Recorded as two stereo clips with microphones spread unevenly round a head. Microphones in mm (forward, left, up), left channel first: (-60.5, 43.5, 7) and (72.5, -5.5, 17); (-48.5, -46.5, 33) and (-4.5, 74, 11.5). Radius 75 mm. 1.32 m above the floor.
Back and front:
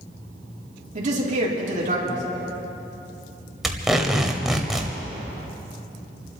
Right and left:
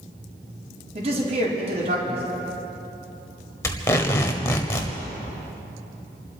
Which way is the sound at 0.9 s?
20° left.